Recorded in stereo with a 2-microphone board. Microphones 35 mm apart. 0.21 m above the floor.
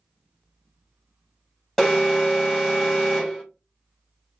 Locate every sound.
1.8 s an alarm: 5° left (ahead or behind), 1.5 m